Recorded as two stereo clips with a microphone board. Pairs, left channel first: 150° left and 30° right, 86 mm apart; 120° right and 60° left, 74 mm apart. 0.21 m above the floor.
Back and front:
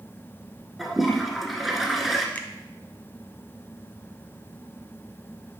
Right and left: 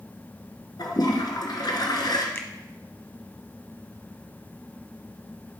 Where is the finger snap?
155° right, 1.0 m.